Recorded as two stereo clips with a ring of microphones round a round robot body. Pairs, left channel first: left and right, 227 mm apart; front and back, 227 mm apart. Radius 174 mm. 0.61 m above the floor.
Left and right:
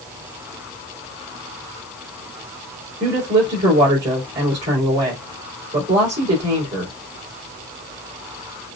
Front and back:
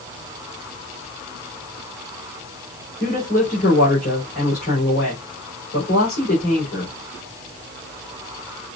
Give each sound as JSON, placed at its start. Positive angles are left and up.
{"t": 3.0, "sound": "a woman speaking", "azimuth_deg": -55, "distance_m": 3.0}